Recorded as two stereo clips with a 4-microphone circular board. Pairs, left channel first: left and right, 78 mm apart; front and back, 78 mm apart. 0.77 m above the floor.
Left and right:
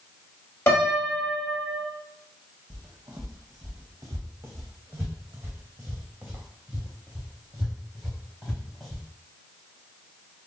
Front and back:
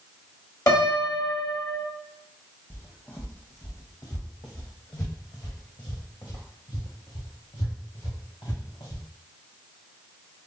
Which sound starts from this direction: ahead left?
A piano, at 0.7 s.